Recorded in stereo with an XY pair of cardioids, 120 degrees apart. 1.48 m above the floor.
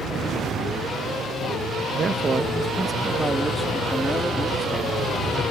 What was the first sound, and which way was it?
A man speaking, 40° right.